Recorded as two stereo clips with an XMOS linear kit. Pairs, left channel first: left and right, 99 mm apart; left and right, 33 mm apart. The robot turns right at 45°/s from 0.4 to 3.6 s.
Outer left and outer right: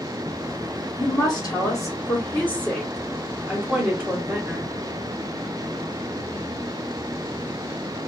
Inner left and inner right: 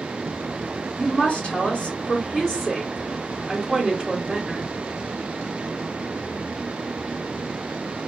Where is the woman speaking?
90° left, 1.3 m; by 4.7 s 150° right, 1.3 m.